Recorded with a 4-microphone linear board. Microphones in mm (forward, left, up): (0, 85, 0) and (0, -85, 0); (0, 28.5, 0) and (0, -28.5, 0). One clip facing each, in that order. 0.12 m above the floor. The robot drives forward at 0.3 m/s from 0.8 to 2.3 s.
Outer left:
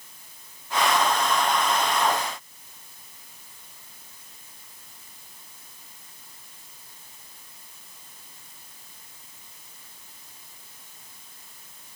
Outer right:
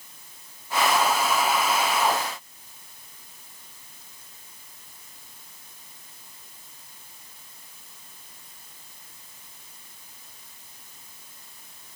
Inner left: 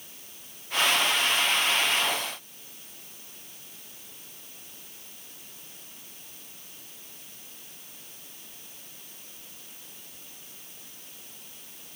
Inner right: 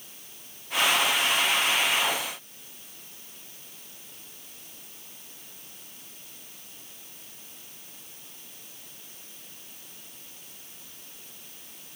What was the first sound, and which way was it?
Only background noise.